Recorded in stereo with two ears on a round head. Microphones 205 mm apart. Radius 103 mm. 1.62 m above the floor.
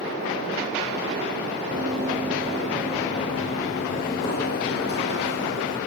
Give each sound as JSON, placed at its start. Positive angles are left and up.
{"t": 1.7, "sound": "running footsteps", "side_deg": -20, "distance_m": 1.8}